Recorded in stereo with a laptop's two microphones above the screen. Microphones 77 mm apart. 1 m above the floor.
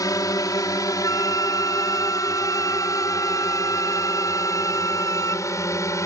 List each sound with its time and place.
0.0 s a drone: 50° left (ahead or behind); by 6.1 s 40° left (ahead or behind)
1.0 s a flute: 45° left (ahead or behind)